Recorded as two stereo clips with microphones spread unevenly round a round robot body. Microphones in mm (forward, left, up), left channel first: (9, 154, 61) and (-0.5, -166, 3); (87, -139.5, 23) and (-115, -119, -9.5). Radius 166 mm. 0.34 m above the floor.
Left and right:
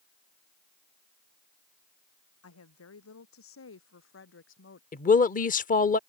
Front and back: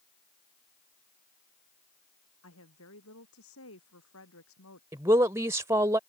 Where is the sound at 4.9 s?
145° left.